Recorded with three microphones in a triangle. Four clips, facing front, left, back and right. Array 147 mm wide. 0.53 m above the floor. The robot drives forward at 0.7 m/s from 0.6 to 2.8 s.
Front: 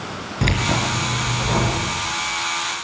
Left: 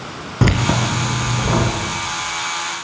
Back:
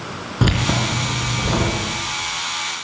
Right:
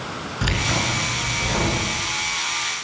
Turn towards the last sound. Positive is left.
turn(degrees=125)